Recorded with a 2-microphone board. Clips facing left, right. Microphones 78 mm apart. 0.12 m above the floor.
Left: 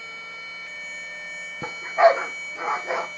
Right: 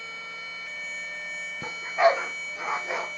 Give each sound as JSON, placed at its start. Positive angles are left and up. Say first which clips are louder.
{"t": 1.6, "sound": "a dog barking", "louder": "left 5 dB", "side_deg": 25, "distance_m": 1.3}